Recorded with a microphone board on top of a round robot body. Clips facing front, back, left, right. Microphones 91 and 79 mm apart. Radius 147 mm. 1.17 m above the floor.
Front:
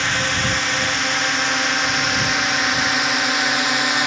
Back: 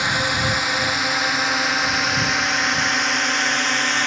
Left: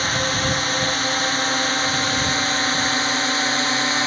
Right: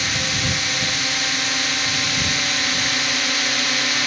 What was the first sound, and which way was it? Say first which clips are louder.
A drone: even, left 3 dB; 105° left.